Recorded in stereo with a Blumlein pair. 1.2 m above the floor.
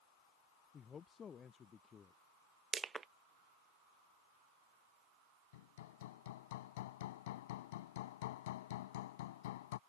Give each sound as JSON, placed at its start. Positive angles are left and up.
{"t": 0.7, "sound": "a man speaking", "azimuth_deg": 20}
{"t": 2.7, "sound": "crushing", "azimuth_deg": -20}
{"t": 5.5, "sound": "hammering", "azimuth_deg": 55}